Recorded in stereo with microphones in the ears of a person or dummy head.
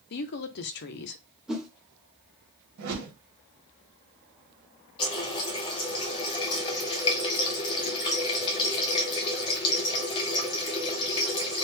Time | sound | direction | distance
0.1 | a woman speaking | 55° left (ahead or behind) | 0.6 m
1.5 | a whoosh | centre (ahead or behind) | 0.9 m
2.8 | a whoosh | 70° right (ahead or behind) | 1.6 m
5.0 | a running tap | 25° left (ahead or behind) | 0.8 m